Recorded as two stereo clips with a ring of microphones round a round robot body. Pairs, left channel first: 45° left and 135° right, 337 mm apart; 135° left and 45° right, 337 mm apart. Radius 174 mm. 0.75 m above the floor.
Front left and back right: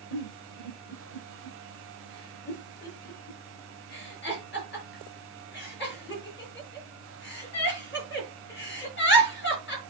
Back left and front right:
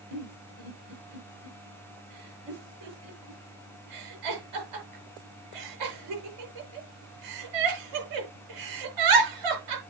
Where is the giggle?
15° right, 6 m.